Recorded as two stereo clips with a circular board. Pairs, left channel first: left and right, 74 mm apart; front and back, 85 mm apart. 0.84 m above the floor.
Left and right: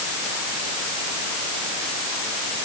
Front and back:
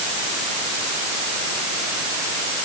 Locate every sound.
Only background noise.